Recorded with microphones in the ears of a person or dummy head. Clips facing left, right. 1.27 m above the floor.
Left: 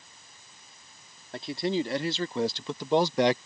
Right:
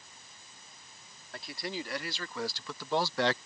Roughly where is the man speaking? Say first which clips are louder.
Left 11 dB; centre.